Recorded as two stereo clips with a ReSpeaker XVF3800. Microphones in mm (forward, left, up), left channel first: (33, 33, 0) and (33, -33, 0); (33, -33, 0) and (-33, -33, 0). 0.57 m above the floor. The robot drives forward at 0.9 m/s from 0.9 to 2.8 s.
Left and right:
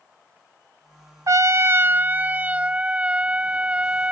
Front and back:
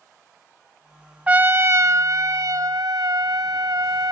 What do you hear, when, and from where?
1.3 s a trumpet: 110° right; by 4.1 s 160° right